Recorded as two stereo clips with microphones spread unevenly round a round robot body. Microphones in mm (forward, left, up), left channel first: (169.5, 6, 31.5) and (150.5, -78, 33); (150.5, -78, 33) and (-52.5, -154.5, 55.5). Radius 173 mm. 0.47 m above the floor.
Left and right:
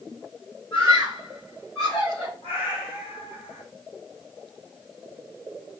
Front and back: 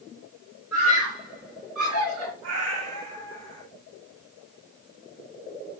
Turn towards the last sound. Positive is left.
turn(degrees=160)